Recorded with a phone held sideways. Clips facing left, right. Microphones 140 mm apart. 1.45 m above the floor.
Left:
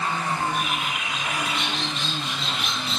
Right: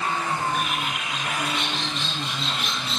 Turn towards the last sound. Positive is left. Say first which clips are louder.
# even
turn(degrees=0)  # may be behind; listen again after turning